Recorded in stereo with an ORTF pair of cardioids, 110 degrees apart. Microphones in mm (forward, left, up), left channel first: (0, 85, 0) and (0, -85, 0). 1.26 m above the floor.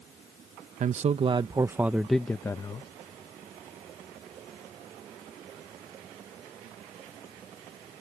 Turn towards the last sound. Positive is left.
turn(degrees=25)